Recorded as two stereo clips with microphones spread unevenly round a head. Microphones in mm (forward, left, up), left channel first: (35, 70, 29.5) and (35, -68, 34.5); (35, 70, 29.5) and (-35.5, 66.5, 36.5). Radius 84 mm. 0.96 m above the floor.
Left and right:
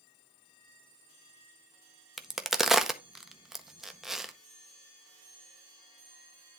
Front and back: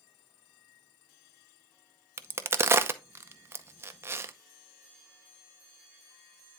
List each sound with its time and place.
2.2 s a crack: straight behind, 0.7 m